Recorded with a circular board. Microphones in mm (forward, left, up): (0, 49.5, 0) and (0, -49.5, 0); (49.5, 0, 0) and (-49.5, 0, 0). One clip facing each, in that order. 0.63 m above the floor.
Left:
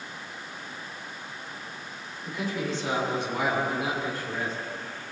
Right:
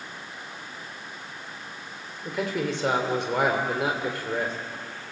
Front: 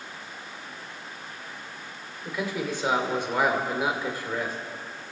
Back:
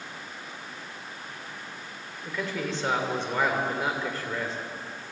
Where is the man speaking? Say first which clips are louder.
Right 3 dB, front 2 dB; 80° right, 2.5 m.